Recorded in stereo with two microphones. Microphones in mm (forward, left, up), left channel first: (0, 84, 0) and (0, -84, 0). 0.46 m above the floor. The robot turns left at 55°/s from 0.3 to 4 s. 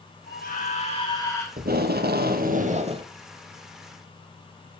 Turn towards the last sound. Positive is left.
turn(degrees=160)